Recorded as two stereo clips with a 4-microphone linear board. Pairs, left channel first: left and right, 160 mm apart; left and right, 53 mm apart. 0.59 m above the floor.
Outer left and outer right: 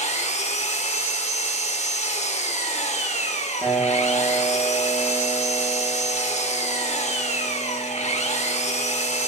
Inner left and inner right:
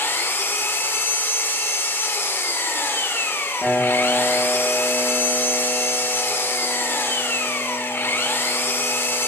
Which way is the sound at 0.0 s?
45° left (ahead or behind).